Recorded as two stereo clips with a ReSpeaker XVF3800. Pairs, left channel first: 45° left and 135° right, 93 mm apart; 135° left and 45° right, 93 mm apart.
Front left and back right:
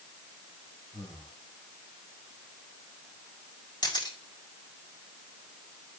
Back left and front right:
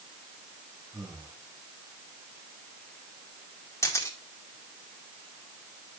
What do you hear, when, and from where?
0.9 s breathing: 10° left, 6.5 m
3.8 s a camera shutter: 80° left, 2 m